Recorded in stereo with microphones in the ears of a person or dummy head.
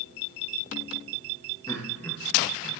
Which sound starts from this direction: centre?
Laughter, at 1.7 s.